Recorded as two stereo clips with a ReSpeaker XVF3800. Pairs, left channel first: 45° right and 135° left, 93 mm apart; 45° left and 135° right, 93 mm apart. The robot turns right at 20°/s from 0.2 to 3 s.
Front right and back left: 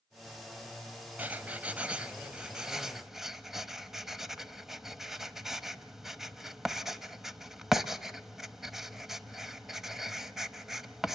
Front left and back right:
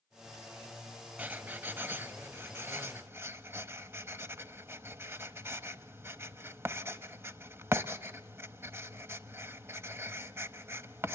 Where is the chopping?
I don't hear chopping.